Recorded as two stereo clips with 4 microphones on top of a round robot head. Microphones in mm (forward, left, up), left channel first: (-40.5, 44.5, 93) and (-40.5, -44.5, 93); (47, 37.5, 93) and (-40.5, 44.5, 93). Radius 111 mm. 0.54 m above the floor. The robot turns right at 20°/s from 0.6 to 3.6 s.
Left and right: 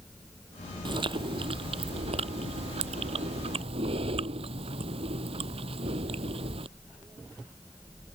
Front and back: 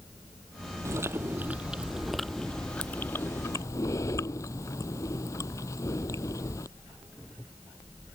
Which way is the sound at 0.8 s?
120° right.